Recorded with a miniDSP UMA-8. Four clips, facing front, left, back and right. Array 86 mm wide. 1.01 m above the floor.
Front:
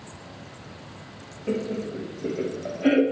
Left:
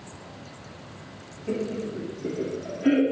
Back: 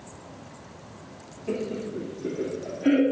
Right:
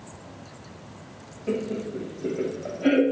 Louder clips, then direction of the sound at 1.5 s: Right 1 dB, front 2 dB; 35° right.